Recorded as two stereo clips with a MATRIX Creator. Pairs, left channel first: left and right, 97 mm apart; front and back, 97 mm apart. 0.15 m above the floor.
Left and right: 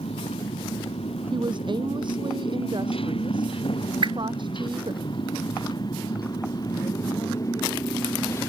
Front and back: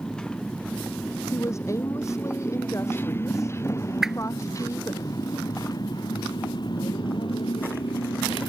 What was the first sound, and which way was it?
A motorcycle, 85° left.